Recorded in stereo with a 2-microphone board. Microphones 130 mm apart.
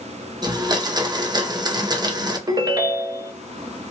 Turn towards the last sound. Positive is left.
turn(degrees=-30)  # may be behind; listen again after turning